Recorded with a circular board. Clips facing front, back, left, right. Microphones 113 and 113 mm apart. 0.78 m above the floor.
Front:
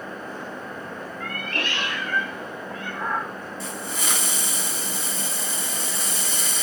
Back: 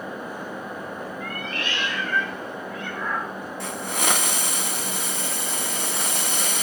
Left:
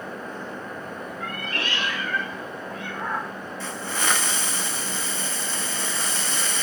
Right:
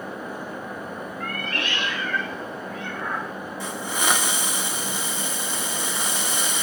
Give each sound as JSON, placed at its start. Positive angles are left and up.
{"t": 1.2, "sound": "a cat meowing", "azimuth_deg": 15, "distance_m": 1.7}
{"t": 3.6, "sound": "a hiss", "azimuth_deg": -165, "distance_m": 0.8}